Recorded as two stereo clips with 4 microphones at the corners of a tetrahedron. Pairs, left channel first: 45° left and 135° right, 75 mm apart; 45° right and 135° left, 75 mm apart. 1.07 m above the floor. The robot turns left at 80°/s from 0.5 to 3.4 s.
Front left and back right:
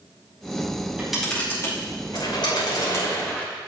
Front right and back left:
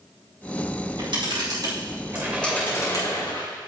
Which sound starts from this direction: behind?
A camera shutter, at 0.8 s.